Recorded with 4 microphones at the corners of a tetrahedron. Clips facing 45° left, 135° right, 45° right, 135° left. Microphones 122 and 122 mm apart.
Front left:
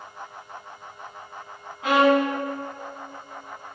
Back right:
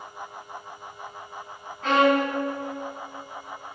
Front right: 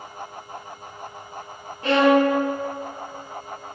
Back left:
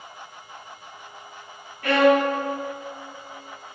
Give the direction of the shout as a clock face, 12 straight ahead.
I don't hear a shout.